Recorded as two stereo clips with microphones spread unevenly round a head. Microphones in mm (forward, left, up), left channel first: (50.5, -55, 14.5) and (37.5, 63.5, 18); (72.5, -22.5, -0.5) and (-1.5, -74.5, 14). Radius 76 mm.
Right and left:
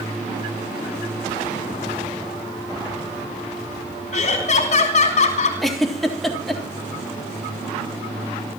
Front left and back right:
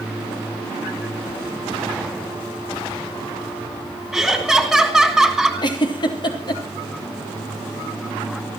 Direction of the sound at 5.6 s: 5° left.